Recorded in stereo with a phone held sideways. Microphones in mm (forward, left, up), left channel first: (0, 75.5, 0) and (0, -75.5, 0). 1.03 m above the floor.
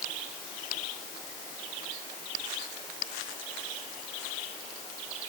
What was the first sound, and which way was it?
Only background noise.